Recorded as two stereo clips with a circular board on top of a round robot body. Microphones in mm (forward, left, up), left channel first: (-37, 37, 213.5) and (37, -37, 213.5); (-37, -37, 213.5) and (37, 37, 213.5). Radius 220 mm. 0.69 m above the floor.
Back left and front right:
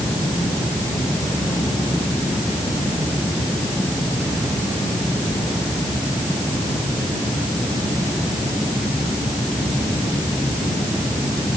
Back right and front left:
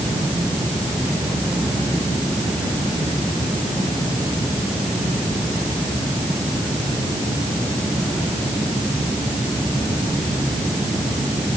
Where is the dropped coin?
No dropped coin in this recording.